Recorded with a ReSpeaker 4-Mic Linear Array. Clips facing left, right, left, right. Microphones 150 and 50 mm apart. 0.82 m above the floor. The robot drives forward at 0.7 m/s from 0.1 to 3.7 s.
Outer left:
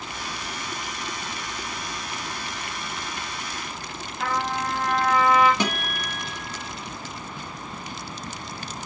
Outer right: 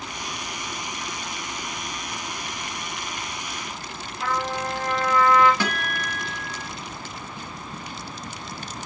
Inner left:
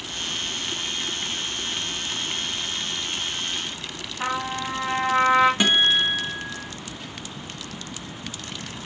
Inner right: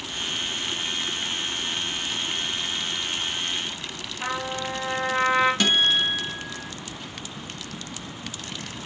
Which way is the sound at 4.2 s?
80° left.